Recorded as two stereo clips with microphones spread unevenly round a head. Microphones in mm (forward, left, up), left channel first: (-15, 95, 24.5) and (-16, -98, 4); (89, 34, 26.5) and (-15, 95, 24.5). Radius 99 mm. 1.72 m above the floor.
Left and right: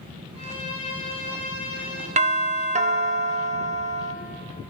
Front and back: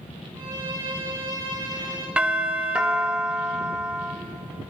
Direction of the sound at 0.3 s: 150° right.